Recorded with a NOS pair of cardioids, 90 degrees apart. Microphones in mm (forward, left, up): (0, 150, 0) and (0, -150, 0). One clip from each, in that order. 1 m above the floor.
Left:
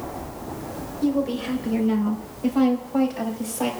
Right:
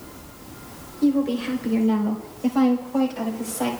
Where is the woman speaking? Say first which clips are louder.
Right 2 dB; 10° right, 3.5 m; by 3.7 s 5° right, 5.5 m.